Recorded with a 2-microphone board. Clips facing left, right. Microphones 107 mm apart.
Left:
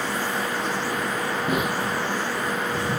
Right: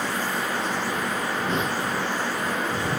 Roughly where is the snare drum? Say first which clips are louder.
Left 3 dB; centre.